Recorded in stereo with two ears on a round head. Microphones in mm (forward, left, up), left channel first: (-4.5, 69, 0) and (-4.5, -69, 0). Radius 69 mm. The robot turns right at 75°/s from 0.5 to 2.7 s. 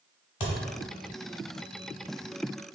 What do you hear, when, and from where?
0.4 s a thud: 35° left (ahead or behind), 1.0 m; by 0.6 s 40° left (ahead or behind), 1.0 m